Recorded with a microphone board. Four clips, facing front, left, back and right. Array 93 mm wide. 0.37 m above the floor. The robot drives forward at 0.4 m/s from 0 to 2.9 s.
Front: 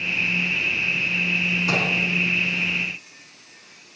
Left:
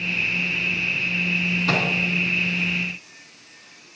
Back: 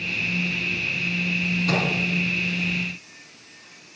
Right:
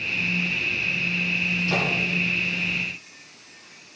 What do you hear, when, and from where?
1.7 s a microwave: 70° left, 4 m; by 1.9 s 75° left, 4 m